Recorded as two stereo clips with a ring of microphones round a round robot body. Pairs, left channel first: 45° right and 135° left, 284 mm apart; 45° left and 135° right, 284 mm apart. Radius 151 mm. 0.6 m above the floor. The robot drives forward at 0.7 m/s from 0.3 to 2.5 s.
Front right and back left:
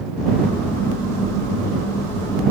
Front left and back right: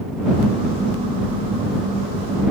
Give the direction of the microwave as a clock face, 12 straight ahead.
I don't hear a microwave.